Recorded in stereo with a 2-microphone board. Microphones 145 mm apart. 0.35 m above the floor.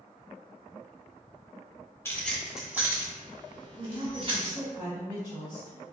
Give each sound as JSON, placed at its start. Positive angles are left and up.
{"t": 2.0, "sound": "keys jangling", "side_deg": 15, "distance_m": 0.8}
{"t": 3.8, "sound": "a woman speaking", "side_deg": -35, "distance_m": 1.3}